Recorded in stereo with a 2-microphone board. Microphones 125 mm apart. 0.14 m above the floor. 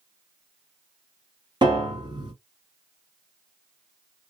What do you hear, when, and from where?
1.6 s a piano: 35° right (ahead or behind), 1.8 m